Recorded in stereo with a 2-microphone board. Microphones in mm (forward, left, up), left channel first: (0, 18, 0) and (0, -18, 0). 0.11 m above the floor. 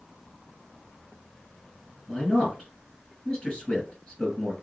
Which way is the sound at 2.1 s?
25° left (ahead or behind).